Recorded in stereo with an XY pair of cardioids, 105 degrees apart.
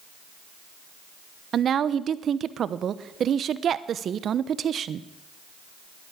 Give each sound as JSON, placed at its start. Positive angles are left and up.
{"t": 1.5, "sound": "a woman speaking", "azimuth_deg": -55, "distance_m": 0.8}